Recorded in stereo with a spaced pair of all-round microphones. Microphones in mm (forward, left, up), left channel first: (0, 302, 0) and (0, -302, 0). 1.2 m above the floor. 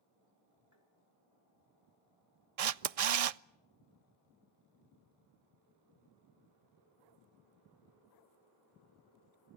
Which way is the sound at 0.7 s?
25° right (ahead or behind).